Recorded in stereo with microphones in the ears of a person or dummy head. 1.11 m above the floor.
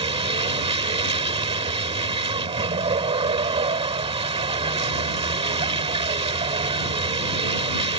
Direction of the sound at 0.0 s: 25° right (ahead or behind).